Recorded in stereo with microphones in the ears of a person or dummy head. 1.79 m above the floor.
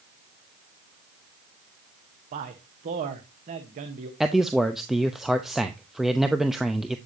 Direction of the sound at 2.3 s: 30° right (ahead or behind).